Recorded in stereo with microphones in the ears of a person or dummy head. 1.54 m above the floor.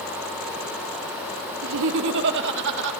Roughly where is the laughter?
Right.